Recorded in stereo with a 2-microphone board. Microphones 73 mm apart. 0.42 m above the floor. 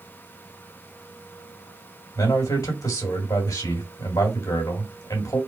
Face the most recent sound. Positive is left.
turn(degrees=60)  # may be behind; listen again after turning